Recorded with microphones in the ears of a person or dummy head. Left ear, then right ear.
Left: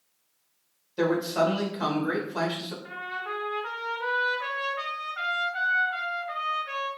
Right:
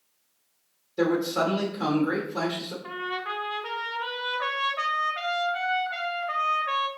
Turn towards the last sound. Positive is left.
turn(degrees=-30)  # may be behind; listen again after turning